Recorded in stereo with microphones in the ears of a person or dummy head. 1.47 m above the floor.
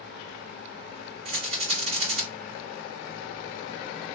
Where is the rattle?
35° right (ahead or behind), 1.6 m.